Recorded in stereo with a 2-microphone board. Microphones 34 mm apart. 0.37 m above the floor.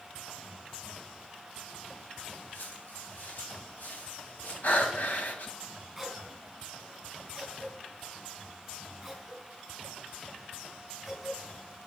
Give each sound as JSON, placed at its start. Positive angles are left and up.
{"t": 2.5, "sound": "footsteps", "side_deg": 80, "distance_m": 4.5}
{"t": 4.6, "sound": "breathing", "side_deg": 60, "distance_m": 1.7}
{"t": 6.0, "sound": "a cough", "side_deg": 10, "distance_m": 3.5}